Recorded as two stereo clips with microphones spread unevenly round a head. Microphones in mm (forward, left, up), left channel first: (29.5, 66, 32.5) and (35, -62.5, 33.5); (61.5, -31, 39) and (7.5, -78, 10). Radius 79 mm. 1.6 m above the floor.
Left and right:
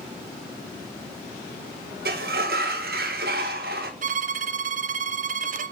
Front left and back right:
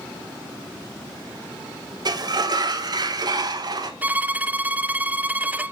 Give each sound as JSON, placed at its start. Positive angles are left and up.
{"t": 2.0, "sound": "a sliding door", "azimuth_deg": -110, "distance_m": 1.6}
{"t": 4.0, "sound": "a violin", "azimuth_deg": -65, "distance_m": 0.6}